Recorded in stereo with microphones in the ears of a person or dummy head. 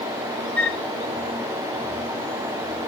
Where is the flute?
15° left (ahead or behind), 1.5 m.